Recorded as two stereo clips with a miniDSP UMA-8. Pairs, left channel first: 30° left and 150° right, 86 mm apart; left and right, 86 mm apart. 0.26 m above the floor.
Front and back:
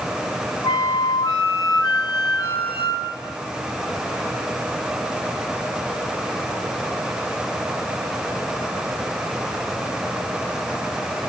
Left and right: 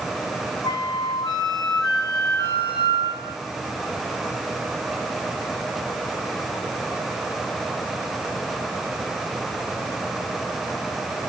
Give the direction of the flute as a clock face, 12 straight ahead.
10 o'clock.